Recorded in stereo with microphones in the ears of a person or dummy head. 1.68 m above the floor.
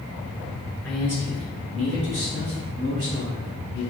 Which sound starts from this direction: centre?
A man speaking, at 0.8 s.